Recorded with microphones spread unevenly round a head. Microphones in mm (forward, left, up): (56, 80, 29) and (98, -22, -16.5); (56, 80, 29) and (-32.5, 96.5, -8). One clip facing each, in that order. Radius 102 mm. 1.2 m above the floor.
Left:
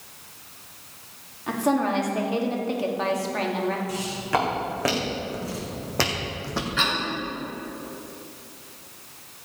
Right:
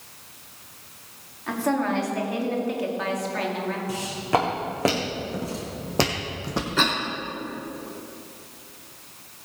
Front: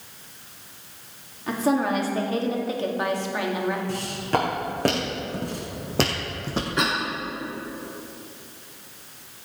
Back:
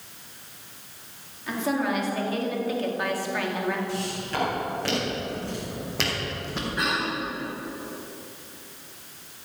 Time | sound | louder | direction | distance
1.5 | a woman speaking | left 1 dB, front 4 dB | 35° left | 2.5 m
3.9 | footsteps | right 2 dB, front 4 dB | 5° right | 4 m
6.8 | a cough | right 3 dB, front 2 dB | 25° right | 3 m